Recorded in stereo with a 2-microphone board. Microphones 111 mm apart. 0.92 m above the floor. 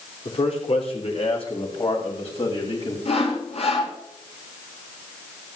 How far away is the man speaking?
About 3 m.